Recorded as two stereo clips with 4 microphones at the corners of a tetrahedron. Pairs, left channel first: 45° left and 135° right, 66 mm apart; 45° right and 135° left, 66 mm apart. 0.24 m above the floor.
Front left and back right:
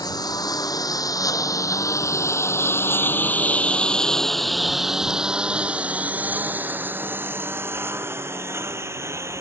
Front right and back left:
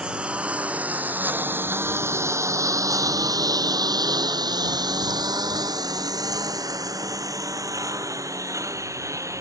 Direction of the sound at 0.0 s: 60° left.